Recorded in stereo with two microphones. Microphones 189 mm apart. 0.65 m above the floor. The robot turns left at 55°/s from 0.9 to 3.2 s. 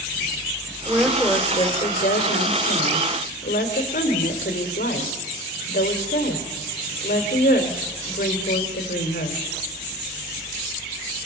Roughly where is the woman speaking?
Behind.